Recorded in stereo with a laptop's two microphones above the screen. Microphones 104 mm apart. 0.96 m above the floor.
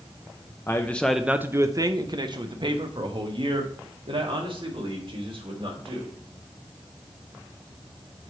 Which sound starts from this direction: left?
A man speaking, at 0.7 s.